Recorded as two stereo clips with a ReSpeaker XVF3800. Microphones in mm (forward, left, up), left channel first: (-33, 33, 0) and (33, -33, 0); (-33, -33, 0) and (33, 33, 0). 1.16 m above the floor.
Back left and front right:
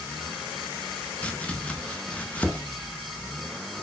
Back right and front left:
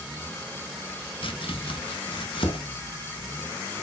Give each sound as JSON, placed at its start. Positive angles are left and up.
{"t": 1.2, "sound": "chopping", "azimuth_deg": -150, "distance_m": 0.6}